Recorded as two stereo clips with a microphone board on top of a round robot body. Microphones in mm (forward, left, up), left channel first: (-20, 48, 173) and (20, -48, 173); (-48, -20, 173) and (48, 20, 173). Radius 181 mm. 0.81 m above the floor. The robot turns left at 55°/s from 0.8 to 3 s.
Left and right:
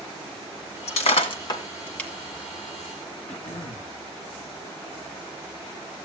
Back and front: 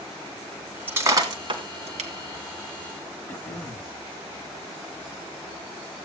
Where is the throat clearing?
125° left, 1.0 m.